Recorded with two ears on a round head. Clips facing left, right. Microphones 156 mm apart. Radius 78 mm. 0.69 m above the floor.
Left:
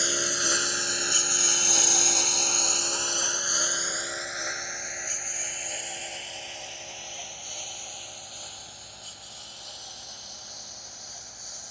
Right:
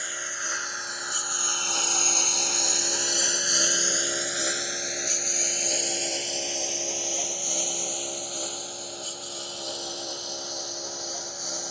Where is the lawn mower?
50° left (ahead or behind); by 11.7 s 65° right (ahead or behind).